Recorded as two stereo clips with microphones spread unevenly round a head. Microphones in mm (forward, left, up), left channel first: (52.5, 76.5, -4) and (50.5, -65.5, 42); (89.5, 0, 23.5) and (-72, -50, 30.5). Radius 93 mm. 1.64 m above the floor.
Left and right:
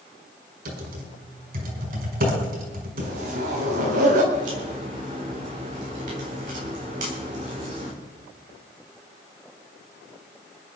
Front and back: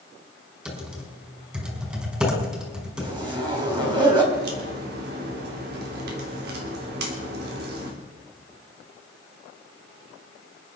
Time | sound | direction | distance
0.7 | typing on a keyboard | 80° right | 5.5 m
3.0 | a zipper | 100° right | 4.5 m
4.3 | a crack | 135° right | 3.5 m